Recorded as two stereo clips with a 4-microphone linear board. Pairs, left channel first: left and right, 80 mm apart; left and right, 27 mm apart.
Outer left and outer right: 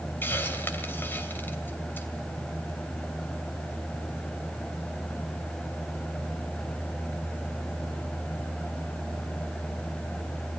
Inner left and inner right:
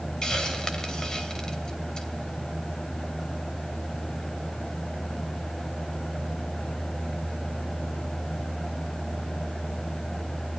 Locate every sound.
0.2 s a hiss: 25° left (ahead or behind), 2.5 m